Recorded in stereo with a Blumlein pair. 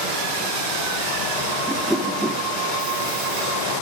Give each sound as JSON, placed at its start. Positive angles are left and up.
{"t": 1.7, "sound": "a whoosh", "azimuth_deg": -5, "distance_m": 2.0}